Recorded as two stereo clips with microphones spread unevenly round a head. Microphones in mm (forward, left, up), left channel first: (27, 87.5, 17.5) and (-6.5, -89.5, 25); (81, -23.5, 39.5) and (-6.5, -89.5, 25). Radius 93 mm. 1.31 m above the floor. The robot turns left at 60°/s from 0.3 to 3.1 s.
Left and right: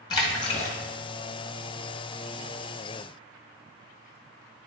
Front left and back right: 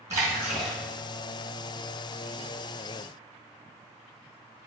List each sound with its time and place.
0.1 s a splash: 145° left, 1.8 m; by 0.8 s 115° left, 1.8 m